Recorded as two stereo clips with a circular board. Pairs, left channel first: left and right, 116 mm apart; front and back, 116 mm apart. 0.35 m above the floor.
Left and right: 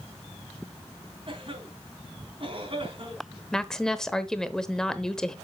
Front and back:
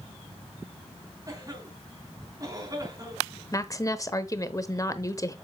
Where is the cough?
125° right, 3.5 m.